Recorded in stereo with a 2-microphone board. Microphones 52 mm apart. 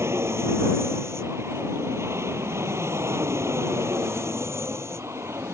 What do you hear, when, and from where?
0.0 s an aircraft: 60° right (ahead or behind)